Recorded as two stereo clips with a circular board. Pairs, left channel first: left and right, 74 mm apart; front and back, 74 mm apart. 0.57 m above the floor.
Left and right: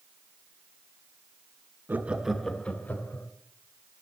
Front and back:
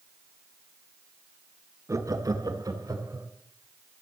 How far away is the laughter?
About 1.1 m.